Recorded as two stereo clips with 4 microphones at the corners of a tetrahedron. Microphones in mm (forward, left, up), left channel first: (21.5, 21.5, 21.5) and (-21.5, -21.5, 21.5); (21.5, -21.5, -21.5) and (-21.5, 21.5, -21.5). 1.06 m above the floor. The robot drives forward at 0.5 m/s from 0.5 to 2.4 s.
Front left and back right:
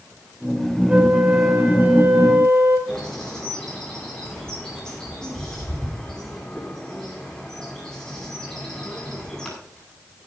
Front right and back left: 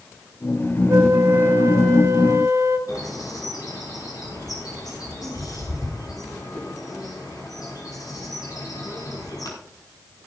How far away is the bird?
About 5.5 m.